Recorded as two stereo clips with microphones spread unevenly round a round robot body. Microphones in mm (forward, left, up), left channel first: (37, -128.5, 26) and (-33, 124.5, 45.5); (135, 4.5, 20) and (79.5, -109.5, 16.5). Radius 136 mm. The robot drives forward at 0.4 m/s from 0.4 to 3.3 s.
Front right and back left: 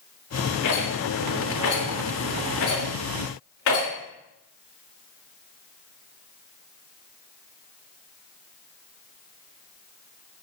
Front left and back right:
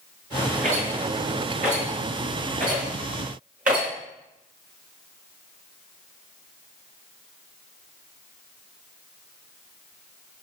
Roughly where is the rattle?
Right.